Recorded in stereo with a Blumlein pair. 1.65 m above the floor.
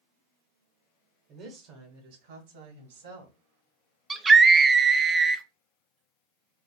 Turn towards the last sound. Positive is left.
turn(degrees=-15)